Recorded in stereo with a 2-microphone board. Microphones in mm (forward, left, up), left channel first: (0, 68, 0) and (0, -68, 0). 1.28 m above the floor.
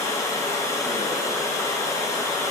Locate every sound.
0.0 s running water: 25° left (ahead or behind), 2.5 m